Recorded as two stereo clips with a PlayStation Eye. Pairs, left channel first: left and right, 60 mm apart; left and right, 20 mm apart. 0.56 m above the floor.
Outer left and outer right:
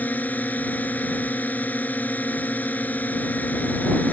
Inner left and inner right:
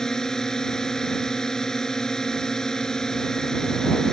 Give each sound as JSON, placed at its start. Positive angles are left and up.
{"t": 0.0, "sound": "a drone", "side_deg": 25}